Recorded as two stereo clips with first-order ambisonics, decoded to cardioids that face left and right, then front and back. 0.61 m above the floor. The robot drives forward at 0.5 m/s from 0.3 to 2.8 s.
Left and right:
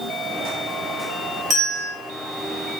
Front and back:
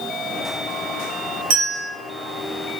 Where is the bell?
160° right, 2.5 m.